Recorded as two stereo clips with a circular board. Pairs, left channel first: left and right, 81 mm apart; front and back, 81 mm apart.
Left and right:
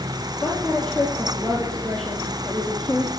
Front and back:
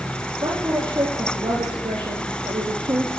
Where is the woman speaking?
175° left, 4 m.